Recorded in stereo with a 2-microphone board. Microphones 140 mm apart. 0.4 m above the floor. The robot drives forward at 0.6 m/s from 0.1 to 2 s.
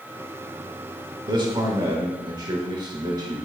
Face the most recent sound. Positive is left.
turn(degrees=-30)  # may be behind; listen again after turning